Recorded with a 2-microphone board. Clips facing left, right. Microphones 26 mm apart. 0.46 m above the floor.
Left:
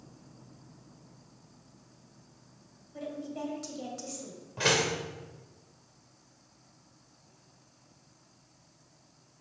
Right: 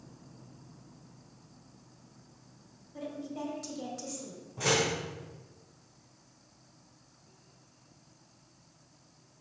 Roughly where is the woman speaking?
Centre.